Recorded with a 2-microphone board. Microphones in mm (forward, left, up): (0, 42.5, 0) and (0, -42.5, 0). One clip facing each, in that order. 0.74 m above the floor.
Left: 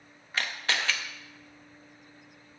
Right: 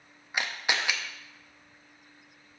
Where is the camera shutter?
15° right (ahead or behind), 0.7 m.